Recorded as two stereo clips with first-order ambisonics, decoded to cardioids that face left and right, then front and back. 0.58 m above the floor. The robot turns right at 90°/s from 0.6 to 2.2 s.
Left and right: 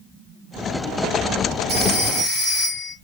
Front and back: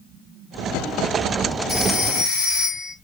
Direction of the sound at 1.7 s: 80° right.